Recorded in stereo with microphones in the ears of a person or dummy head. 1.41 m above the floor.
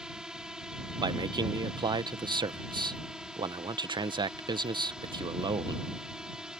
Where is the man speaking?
25° right (ahead or behind).